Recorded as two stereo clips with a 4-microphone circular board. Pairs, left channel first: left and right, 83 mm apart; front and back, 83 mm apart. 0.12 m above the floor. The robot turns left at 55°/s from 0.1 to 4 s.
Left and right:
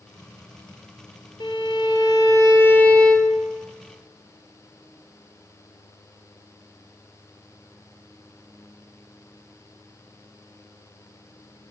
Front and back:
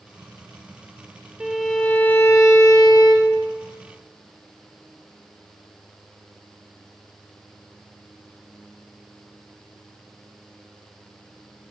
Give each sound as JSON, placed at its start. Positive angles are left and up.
{"t": 1.4, "sound": "a violin", "azimuth_deg": 100, "distance_m": 0.9}